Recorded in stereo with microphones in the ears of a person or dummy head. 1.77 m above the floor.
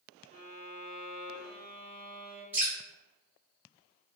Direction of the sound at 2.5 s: 10° right (ahead or behind).